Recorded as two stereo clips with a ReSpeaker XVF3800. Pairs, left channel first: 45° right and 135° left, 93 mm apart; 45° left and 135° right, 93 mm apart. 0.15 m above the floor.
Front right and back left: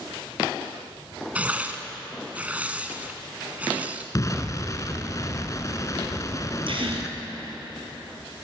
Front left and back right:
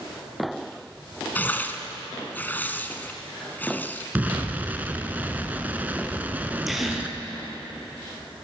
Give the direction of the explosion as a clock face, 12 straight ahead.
2 o'clock.